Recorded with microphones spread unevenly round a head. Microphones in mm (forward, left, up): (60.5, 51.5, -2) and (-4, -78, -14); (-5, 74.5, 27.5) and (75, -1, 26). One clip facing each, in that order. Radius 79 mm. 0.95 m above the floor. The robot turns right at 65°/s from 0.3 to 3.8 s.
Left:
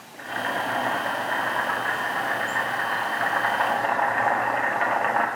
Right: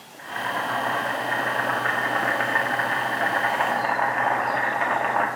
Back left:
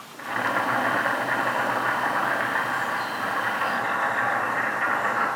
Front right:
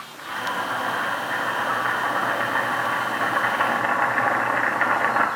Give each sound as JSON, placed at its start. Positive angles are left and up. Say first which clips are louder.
{"t": 0.2, "sound": "boiling", "louder": "left 1 dB, back left 2 dB", "azimuth_deg": 105, "distance_m": 1.3}